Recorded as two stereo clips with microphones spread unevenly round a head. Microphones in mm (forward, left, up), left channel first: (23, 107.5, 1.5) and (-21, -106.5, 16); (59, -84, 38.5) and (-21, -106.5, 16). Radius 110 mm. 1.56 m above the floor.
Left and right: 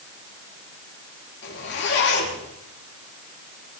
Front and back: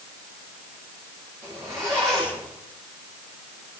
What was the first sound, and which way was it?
A zipper, 120° left.